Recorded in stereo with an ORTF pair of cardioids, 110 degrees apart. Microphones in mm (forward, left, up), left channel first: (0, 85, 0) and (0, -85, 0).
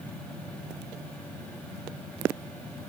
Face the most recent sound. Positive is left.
turn(degrees=5)